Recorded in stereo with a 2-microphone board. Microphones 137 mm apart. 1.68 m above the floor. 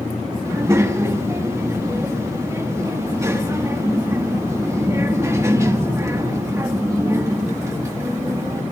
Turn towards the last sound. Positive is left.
turn(degrees=-20)  # may be behind; listen again after turning